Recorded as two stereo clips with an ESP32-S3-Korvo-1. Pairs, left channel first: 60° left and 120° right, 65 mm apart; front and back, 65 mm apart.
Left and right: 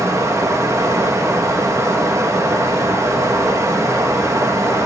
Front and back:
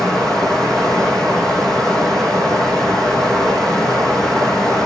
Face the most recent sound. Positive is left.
turn(degrees=-80)